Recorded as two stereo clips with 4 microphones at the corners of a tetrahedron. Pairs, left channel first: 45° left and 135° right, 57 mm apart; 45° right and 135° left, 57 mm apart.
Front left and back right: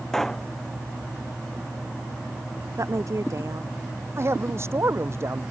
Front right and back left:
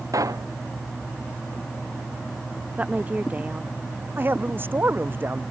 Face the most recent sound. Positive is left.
turn(degrees=-175)